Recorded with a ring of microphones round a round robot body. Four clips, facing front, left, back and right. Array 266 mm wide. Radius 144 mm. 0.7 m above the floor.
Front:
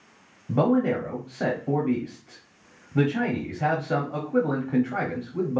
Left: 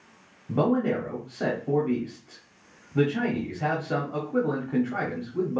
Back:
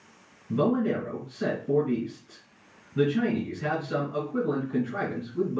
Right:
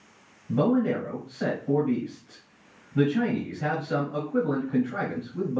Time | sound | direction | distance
0.5 | a man speaking | 20° left | 1.5 m